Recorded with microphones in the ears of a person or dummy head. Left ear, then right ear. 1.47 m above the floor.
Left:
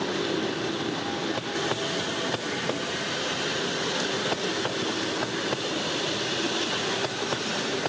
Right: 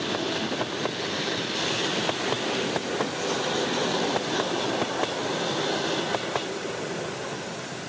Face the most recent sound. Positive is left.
No sound to turn to.